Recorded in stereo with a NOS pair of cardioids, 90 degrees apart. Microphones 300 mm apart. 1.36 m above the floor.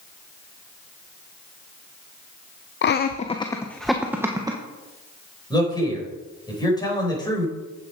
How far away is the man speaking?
About 5.5 m.